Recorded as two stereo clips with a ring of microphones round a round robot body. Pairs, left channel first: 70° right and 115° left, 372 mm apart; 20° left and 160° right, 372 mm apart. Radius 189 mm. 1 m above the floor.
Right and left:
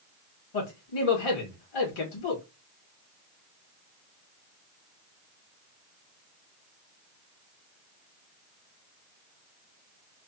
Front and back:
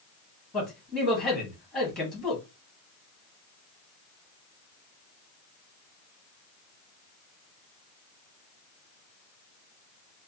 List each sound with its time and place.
0.5 s a man speaking: 65° right, 1.6 m